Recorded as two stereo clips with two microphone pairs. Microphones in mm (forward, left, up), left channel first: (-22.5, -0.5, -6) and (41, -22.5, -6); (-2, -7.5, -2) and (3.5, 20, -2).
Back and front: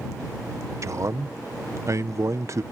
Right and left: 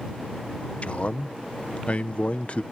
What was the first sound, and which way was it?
A man speaking, 60° right.